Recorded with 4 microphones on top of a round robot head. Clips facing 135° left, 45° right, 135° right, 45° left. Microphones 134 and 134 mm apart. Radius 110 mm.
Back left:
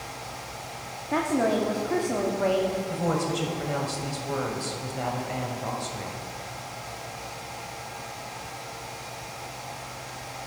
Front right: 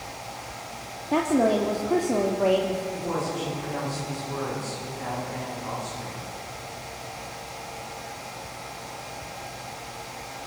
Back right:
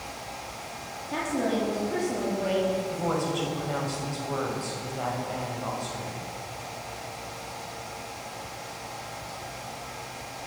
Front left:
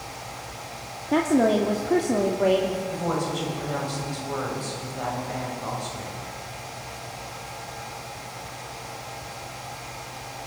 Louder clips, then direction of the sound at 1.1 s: Front right 3 dB, front left 8 dB; 20° left.